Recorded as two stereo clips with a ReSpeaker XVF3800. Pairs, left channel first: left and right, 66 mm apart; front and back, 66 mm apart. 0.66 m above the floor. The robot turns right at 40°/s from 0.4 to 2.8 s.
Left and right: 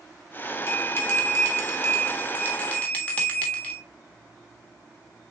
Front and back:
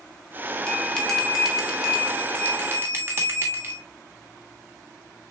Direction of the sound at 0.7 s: 65° left.